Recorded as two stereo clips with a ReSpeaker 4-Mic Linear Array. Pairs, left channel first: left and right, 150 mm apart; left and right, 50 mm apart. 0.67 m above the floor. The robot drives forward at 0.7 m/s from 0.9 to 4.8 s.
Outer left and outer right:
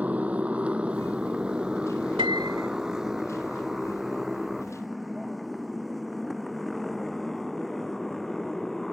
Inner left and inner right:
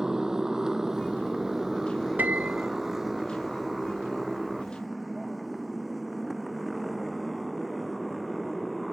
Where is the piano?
35° right (ahead or behind); by 2.7 s 30° right (ahead or behind).